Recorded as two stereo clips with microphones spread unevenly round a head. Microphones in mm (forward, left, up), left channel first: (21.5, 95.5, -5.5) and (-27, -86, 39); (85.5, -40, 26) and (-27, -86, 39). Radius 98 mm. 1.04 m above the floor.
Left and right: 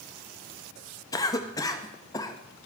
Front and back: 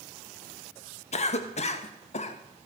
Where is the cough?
10° left, 1.4 m.